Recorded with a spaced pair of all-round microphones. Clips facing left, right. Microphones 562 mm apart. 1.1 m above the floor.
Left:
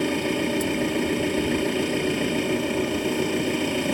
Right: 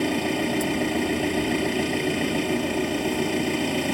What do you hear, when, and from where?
0.0 s an engine running: 5° right (ahead or behind)